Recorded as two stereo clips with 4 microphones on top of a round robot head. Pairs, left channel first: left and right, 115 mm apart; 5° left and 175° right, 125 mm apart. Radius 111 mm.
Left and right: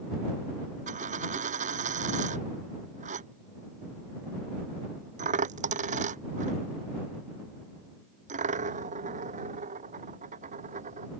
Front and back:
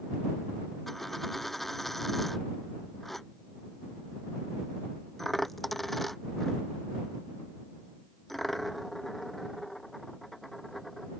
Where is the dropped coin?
85° right.